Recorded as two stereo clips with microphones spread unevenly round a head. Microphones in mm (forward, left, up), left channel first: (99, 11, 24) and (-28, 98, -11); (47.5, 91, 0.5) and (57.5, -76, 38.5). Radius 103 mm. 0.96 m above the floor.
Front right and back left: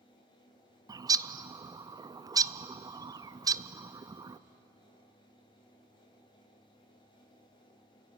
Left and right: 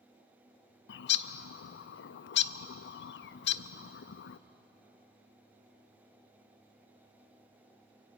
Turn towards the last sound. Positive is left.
turn(degrees=75)